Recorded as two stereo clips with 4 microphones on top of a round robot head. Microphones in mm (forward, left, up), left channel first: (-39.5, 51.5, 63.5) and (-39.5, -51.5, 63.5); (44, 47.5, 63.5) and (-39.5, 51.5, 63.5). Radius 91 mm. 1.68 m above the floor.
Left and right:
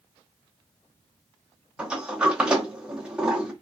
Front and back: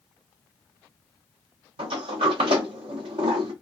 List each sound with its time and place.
1.8 s a sliding door: 170° right, 0.6 m